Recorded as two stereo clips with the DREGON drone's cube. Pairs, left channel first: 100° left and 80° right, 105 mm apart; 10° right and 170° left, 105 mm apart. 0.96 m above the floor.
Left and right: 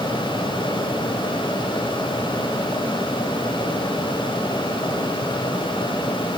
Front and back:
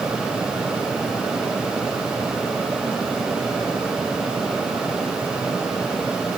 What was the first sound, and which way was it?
Only background noise.